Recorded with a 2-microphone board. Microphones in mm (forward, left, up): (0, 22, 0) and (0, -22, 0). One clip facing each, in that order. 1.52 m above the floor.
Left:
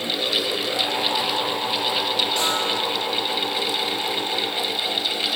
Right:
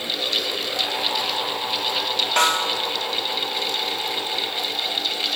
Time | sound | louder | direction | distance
2.4 | a snare drum | right 3 dB | 55° right (ahead or behind) | 2.5 m